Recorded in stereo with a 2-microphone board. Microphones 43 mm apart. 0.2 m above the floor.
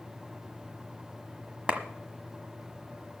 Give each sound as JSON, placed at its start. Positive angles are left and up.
{"t": 1.7, "sound": "a clap", "side_deg": -30, "distance_m": 1.3}